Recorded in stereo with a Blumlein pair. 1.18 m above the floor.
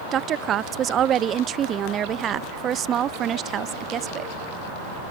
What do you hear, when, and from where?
0.1 s a woman speaking: 25° right